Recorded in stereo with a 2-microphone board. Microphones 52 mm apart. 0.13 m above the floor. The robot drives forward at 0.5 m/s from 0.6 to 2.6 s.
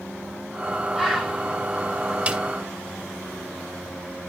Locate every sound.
0.9 s a bird: centre (ahead or behind), 3 m
2.3 s a snare drum: 25° right (ahead or behind), 1.0 m; by 2.4 s 30° right (ahead or behind), 0.9 m